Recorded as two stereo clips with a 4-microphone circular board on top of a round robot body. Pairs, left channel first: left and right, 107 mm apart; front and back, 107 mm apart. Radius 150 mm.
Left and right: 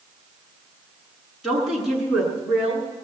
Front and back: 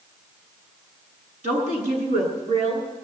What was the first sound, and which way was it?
A woman speaking, straight behind.